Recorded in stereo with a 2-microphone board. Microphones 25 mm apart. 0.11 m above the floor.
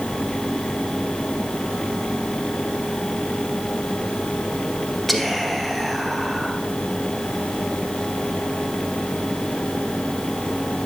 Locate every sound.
5.1 s whispering: 5° left (ahead or behind), 1.4 m